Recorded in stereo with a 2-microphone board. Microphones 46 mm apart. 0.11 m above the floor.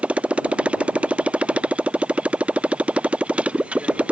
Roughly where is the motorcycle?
Right.